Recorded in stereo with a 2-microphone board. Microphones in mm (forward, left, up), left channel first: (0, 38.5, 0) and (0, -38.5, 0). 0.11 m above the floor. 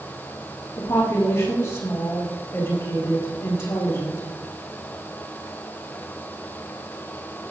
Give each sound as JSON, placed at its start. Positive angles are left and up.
{"t": 0.8, "sound": "a woman speaking", "side_deg": 50, "distance_m": 4.0}